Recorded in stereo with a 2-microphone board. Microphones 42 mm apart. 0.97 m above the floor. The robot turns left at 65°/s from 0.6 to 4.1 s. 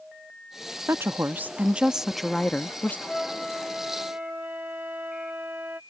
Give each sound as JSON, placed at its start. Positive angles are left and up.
{"t": 0.9, "sound": "a woman speaking", "azimuth_deg": -95}
{"t": 3.1, "sound": "a flute", "azimuth_deg": 20}